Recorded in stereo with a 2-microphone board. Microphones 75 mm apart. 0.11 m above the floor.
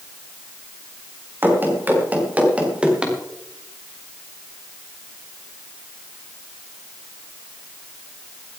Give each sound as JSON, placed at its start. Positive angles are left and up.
{"t": 1.4, "sound": "running footsteps", "side_deg": -30, "distance_m": 5.0}